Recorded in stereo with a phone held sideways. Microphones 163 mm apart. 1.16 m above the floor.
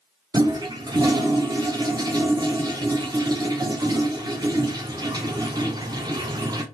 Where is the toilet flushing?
25° right (ahead or behind), 0.6 m.